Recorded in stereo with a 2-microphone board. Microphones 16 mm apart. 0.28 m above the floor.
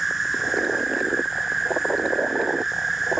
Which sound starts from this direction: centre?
An insect, at 0.0 s.